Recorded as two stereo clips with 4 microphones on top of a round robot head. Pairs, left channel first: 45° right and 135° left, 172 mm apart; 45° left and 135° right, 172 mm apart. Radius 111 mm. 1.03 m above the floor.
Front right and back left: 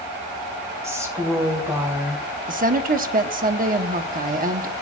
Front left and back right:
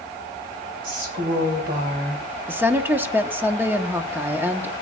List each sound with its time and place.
0.8 s a woman speaking: 155° right, 3 m
2.5 s a woman speaking: 150° left, 0.9 m